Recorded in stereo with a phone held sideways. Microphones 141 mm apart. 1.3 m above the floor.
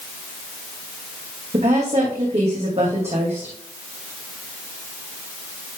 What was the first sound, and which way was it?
A woman speaking, 50° right (ahead or behind).